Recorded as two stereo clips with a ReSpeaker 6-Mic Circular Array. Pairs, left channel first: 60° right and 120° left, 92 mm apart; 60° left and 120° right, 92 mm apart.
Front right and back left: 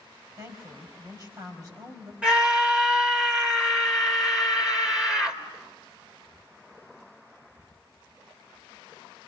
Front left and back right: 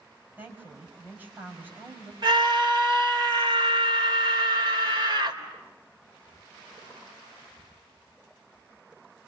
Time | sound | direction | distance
0.4 | a woman speaking | 170° left | 5 m
2.2 | a scream | 160° right | 3.5 m